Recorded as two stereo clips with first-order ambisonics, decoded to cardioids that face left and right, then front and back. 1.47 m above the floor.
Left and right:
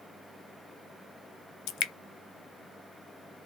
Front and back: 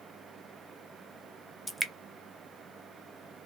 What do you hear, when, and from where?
1.7 s dripping: 90° left, 0.5 m